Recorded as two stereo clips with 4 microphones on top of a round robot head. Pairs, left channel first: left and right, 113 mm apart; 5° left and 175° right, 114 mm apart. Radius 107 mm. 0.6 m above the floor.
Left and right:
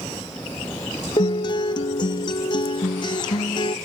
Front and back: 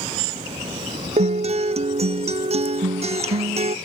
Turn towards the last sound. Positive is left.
turn(degrees=150)